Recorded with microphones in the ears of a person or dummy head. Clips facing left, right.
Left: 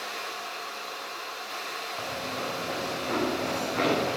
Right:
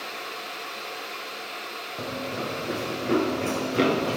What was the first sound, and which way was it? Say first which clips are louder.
Running footsteps: right 4 dB; 45° right (ahead or behind).